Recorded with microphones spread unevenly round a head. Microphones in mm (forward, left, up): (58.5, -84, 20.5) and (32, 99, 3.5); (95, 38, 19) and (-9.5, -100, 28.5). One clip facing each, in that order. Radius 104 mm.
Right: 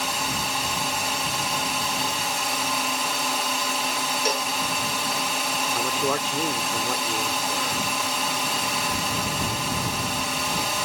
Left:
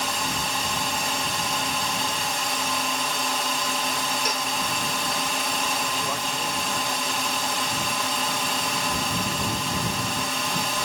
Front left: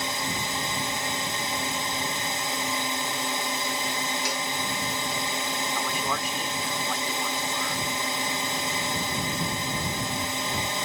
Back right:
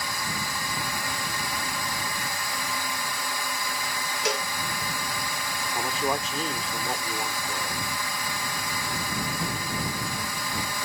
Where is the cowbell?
150° right.